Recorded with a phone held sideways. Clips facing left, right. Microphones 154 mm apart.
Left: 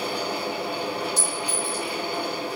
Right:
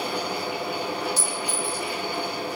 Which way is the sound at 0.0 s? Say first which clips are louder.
Even; 70° left (ahead or behind).